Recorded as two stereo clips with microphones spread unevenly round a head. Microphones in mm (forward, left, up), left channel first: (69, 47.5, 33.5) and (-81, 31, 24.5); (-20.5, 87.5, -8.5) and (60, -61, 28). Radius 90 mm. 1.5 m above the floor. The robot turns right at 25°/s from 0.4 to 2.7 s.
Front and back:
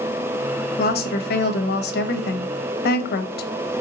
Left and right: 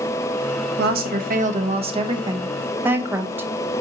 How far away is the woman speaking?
About 0.7 m.